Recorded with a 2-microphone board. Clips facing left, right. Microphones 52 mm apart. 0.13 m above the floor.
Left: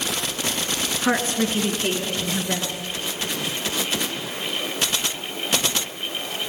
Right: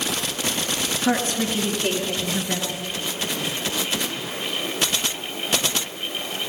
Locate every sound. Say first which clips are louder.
1.0 s a woman speaking: left 1 dB; 25° left (ahead or behind), 1.4 m; by 2.7 s 15° left (ahead or behind), 1.8 m